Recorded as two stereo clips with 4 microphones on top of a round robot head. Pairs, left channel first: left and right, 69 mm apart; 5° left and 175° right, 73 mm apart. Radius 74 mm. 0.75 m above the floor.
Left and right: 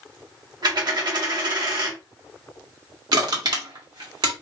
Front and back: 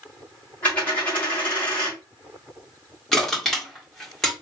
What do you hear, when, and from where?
0.6 s a dropped coin: 65° right, 1.8 m
3.1 s crushing: 80° right, 1.8 m